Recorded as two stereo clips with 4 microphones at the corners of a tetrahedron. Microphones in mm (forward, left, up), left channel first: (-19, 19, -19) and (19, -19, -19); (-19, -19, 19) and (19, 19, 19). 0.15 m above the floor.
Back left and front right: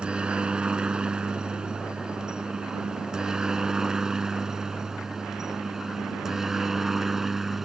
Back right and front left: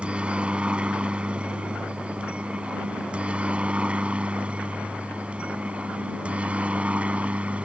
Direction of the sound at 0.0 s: Straight ahead.